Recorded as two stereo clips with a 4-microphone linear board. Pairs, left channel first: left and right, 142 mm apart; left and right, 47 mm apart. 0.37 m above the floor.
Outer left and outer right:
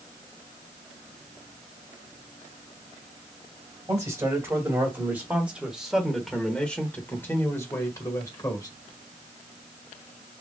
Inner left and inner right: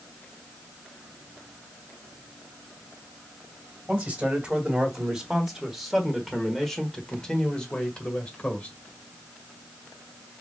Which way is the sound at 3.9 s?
25° right (ahead or behind).